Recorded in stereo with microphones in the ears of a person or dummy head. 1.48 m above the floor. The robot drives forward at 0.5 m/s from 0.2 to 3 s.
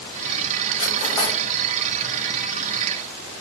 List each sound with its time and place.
0.8 s cutlery clinking: 20° left (ahead or behind), 0.5 m; by 1.4 s 15° left (ahead or behind), 0.7 m